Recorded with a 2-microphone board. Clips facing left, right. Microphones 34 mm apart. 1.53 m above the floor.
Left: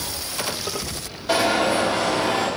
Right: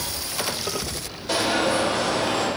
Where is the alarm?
10° left (ahead or behind), 1.9 m.